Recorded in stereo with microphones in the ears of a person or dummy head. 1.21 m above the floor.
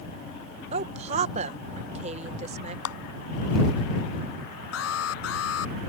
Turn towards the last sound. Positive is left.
turn(degrees=80)